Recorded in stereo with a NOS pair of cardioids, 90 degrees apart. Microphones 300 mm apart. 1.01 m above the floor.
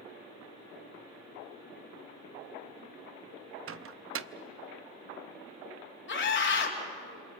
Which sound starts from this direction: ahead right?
A microwave, at 3.7 s.